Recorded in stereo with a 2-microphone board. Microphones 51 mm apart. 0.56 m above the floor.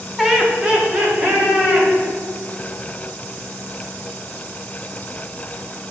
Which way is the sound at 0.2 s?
5° right (ahead or behind).